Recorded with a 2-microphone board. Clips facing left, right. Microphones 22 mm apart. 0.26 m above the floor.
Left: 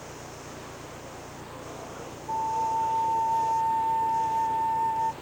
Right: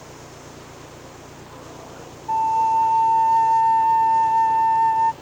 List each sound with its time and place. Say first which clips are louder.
0.0 s an engine running: right 1 dB; 45° right (ahead or behind)
2.3 s a flute: right 9 dB; 45° right (ahead or behind)